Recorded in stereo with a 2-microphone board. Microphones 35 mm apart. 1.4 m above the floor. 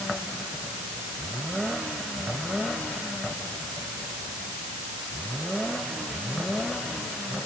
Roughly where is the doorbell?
No doorbell in this recording.